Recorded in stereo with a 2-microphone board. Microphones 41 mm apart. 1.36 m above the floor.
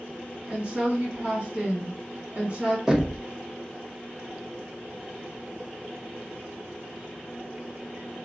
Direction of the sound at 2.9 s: 15° right (ahead or behind).